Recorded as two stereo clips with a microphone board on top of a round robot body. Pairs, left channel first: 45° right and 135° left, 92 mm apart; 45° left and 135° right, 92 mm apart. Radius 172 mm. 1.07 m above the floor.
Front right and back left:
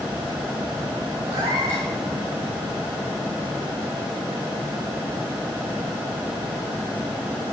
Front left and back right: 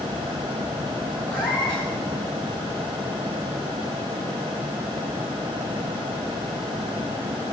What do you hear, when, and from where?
1.3 s a cat meowing: 120° left, 3.5 m